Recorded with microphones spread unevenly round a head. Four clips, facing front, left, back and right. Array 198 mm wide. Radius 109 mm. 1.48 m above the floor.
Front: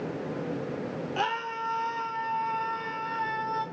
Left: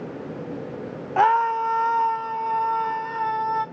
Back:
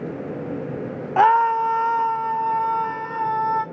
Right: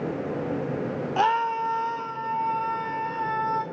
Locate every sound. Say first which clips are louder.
1.2 s a scream: left 5 dB, back 17 dB; 160° left, 0.7 m; by 3.6 s 150° left, 2.5 m